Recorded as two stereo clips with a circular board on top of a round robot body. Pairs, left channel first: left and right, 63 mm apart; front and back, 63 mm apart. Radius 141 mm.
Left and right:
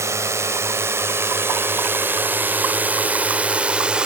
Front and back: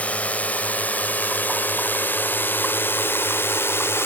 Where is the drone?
60° right; by 4.1 s 20° right.